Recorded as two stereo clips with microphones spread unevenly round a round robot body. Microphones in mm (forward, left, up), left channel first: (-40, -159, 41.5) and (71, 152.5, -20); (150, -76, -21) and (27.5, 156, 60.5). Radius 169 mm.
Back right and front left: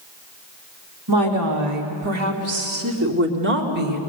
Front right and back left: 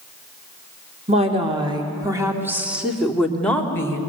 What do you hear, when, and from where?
1.1 s a woman speaking: 50° left, 3 m; by 4.0 s 15° left, 2.5 m